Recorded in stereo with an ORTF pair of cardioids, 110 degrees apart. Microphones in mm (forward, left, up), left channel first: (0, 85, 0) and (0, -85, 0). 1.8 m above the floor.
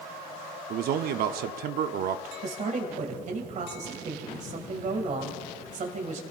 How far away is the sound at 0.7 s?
About 0.7 m.